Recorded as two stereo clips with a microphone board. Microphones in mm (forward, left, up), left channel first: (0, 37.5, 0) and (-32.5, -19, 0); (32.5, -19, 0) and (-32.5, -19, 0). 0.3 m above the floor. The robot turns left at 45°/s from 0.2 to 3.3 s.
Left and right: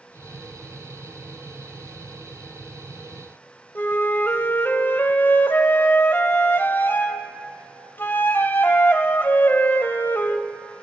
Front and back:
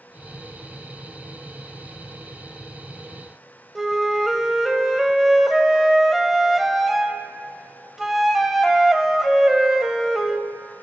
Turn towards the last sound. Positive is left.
turn(degrees=95)